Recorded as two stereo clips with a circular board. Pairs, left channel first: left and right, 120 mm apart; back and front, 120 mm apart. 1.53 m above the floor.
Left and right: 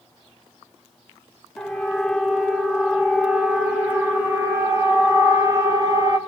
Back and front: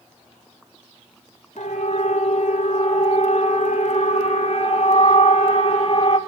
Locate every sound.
1.6 s a siren: straight behind, 6 m; by 6.2 s 145° right, 4.5 m